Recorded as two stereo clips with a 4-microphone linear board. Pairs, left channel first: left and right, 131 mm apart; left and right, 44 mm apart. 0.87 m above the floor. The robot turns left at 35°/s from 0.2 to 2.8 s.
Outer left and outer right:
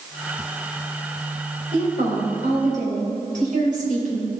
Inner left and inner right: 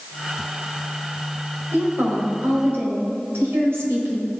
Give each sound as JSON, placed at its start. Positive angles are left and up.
{"t": 1.7, "sound": "a woman speaking", "azimuth_deg": -60, "distance_m": 4.0}